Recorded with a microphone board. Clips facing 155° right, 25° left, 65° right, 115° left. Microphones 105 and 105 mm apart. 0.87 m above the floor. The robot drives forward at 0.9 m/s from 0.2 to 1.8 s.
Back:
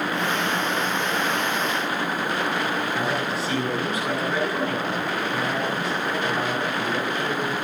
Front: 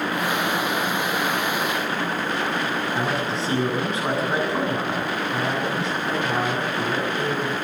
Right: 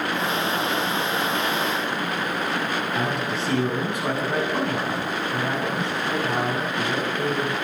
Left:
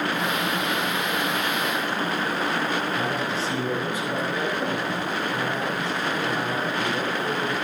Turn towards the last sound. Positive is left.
turn(degrees=-45)